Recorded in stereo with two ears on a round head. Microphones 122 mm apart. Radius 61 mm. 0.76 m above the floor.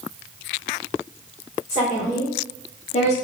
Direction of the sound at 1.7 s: 65° left (ahead or behind).